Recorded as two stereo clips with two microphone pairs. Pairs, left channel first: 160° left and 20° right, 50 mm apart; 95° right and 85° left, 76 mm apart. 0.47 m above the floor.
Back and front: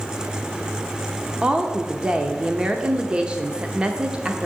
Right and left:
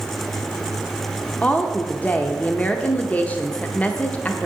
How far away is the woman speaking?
About 0.7 m.